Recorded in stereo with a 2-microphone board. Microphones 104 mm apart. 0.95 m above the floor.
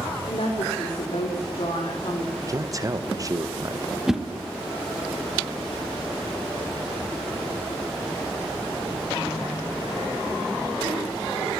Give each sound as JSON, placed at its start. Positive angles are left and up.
{"t": 0.3, "sound": "a woman speaking", "side_deg": 75, "distance_m": 2.5}
{"t": 2.4, "sound": "a man speaking", "side_deg": -35, "distance_m": 0.7}
{"t": 4.1, "sound": "a whoosh", "side_deg": -5, "distance_m": 0.9}